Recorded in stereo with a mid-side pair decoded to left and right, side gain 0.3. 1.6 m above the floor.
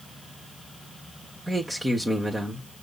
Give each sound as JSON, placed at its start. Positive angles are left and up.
{"t": 1.5, "sound": "a man speaking", "azimuth_deg": -20, "distance_m": 1.3}